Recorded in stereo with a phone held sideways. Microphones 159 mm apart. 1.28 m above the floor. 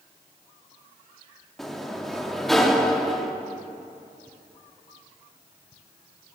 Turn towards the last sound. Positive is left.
turn(degrees=0)  # may be behind; listen again after turning